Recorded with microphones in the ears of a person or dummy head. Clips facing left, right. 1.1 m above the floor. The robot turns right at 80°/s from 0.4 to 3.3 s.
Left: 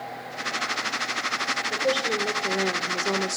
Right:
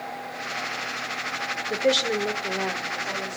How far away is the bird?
I don't hear a bird.